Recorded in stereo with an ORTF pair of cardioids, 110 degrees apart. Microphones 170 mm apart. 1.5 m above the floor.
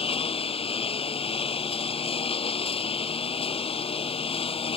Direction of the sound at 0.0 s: 35° left.